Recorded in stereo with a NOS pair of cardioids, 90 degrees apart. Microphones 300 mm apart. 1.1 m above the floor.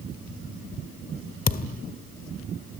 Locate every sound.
1.5 s a thud: 30° left, 1.7 m